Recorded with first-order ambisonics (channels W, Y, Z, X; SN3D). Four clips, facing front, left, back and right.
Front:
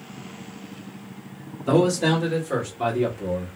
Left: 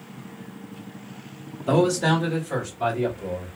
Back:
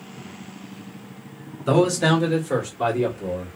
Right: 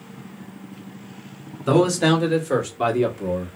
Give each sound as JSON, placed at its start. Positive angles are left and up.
{"t": 1.7, "sound": "a man speaking", "azimuth_deg": -115, "distance_m": 1.6}